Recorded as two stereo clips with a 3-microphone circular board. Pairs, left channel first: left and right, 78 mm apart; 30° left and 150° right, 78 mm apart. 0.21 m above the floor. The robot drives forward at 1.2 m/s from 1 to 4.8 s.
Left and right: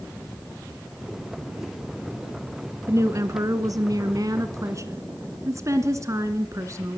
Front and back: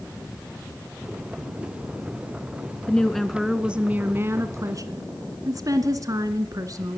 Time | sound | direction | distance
2.9 | a woman speaking | 45° right | 2 m